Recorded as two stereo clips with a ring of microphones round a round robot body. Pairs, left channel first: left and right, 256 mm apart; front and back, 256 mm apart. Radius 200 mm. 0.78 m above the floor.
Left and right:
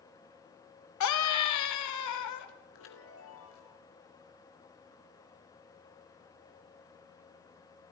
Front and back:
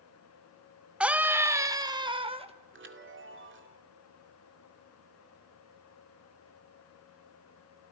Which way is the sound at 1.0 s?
95° left.